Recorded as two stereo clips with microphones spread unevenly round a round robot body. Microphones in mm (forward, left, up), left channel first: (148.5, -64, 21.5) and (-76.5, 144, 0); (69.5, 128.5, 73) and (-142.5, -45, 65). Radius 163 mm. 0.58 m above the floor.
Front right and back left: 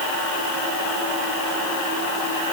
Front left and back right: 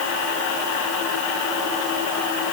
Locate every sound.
Only background noise.